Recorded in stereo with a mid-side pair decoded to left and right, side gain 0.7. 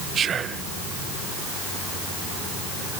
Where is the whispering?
35° right, 0.5 m.